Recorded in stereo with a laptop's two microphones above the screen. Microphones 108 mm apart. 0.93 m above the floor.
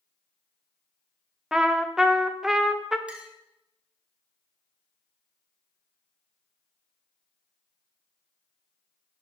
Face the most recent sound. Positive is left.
turn(degrees=-10)  # may be behind; listen again after turning